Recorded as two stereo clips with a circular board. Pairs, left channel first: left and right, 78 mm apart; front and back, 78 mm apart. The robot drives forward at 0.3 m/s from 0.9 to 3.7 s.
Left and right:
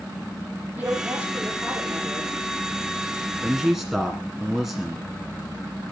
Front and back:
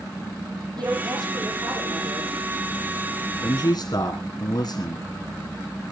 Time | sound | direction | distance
0.8 | a woman speaking | 155° right | 9.5 m
3.4 | a man speaking | 5° right | 2.5 m